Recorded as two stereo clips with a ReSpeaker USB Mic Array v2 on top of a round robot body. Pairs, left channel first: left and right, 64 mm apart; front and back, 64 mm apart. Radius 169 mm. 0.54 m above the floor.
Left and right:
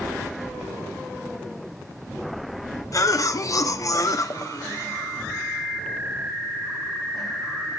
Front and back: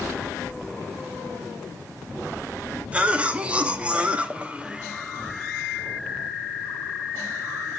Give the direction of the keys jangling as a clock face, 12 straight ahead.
3 o'clock.